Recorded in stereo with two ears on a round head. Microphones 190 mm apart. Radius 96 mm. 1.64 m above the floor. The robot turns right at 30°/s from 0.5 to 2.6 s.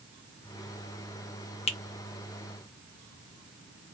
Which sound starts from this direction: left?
A finger snap, at 1.7 s.